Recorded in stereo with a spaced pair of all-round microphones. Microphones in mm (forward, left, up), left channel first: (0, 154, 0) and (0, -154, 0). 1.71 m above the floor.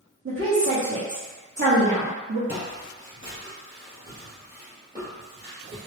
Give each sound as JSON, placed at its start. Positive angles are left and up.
{"t": 0.2, "sound": "a woman speaking", "side_deg": -45, "distance_m": 1.0}
{"t": 2.5, "sound": "footsteps", "side_deg": 20, "distance_m": 1.8}